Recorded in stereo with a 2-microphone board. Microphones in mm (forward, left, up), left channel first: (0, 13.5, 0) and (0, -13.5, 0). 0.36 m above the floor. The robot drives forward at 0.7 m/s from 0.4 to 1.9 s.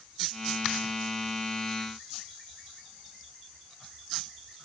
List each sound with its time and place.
Only background noise.